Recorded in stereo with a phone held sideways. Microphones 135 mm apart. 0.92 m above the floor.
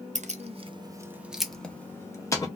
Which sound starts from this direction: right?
Keys jangling, at 0.1 s.